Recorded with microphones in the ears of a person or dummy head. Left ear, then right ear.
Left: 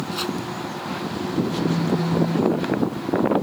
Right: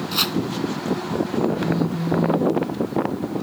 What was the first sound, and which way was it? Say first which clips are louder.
Chopping: right 7 dB; 30° right (ahead or behind).